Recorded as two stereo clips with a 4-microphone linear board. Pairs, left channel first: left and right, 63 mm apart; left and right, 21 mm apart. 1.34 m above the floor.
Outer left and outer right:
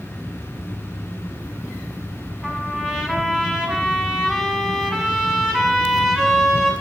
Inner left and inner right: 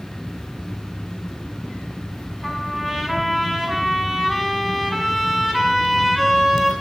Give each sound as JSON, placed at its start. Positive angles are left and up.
{"t": 2.4, "sound": "a trumpet", "side_deg": -5, "distance_m": 6.5}